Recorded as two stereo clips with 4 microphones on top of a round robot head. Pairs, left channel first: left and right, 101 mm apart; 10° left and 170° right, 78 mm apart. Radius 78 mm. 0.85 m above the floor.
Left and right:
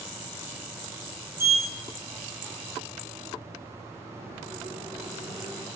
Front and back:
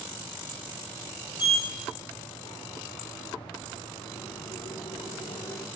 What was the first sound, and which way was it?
A sliding door, 25° right.